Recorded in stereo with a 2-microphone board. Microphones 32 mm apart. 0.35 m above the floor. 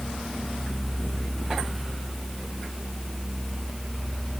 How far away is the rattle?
I don't hear a rattle.